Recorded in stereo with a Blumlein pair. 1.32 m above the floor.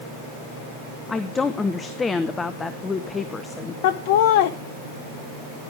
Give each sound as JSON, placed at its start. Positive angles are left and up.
{"t": 1.1, "sound": "a woman speaking", "azimuth_deg": 15, "distance_m": 0.9}
{"t": 3.8, "sound": "laughter", "azimuth_deg": 50, "distance_m": 0.7}